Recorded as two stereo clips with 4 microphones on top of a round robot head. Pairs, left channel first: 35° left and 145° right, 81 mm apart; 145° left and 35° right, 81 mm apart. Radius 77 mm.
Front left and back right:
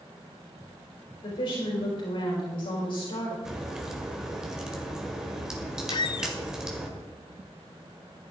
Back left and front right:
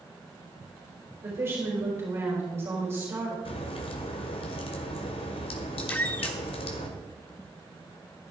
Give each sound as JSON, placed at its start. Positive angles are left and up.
{"t": 1.2, "sound": "a woman speaking", "azimuth_deg": 25, "distance_m": 5.0}
{"t": 3.5, "sound": "a crack", "azimuth_deg": 130, "distance_m": 1.7}
{"t": 5.9, "sound": "a squeak", "azimuth_deg": 70, "distance_m": 0.6}